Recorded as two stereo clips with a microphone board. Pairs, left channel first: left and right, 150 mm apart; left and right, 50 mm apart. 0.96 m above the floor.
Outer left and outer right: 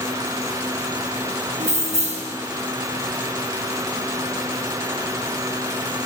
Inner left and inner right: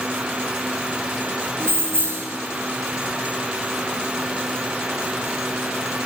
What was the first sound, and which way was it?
Keys jangling, 50° right (ahead or behind).